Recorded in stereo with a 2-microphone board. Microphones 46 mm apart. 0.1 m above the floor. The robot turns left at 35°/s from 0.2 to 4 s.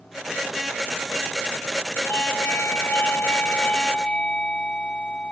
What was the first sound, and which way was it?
A doorbell, 95° left.